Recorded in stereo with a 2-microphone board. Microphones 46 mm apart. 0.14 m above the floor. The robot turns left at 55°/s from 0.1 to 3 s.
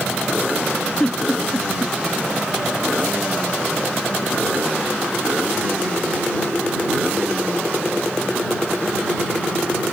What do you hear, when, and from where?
1.0 s a giggle: 20° left (ahead or behind); by 1.9 s 15° left (ahead or behind)